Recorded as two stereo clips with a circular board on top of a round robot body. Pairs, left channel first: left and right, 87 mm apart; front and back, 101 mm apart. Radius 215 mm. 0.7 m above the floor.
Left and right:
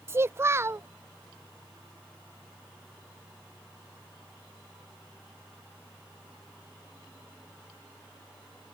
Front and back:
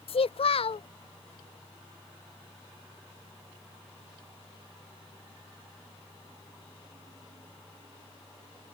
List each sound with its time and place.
0.1 s a child speaking: 25° right